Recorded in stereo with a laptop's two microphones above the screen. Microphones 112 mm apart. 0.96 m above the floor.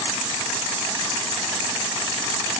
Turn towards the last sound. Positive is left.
No sound to turn to.